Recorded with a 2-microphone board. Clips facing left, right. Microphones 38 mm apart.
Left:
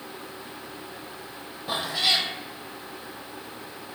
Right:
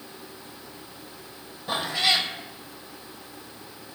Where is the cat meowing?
5° left (ahead or behind), 1.6 m.